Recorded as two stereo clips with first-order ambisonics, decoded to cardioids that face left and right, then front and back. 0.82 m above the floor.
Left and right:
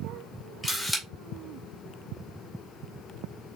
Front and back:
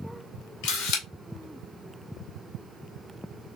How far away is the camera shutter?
About 1.8 m.